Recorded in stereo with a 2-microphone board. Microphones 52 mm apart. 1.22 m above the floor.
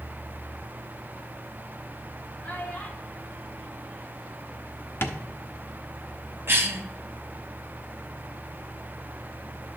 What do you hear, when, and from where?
2.4 s a child speaking: 25° left (ahead or behind), 2.5 m; by 4.8 s 10° right (ahead or behind), 5 m
5.0 s tapping: 45° left (ahead or behind), 0.9 m
6.5 s a cough: 45° right (ahead or behind), 1.5 m